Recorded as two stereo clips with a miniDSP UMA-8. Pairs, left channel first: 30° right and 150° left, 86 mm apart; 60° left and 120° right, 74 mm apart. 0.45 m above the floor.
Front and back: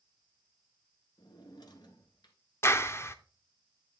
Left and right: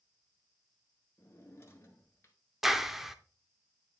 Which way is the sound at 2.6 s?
40° right.